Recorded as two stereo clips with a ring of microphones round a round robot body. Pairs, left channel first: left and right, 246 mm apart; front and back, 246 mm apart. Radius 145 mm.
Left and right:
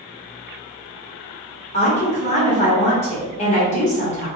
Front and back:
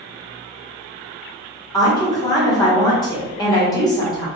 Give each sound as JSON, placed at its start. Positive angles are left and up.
{"t": 1.7, "sound": "a woman speaking", "azimuth_deg": 60, "distance_m": 1.2}